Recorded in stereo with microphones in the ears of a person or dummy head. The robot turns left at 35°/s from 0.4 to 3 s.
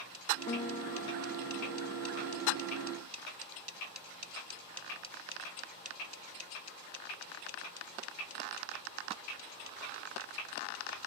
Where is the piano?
160° left, 1.7 m; by 2.4 s 90° left, 1.7 m.